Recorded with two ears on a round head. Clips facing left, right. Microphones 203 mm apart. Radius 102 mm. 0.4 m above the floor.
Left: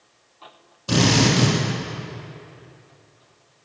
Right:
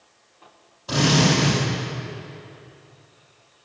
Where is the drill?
35° left (ahead or behind), 6 m.